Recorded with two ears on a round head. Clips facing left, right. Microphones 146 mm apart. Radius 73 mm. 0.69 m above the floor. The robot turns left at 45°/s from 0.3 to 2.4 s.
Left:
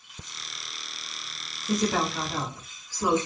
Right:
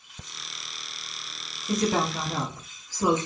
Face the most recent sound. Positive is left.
turn(degrees=-25)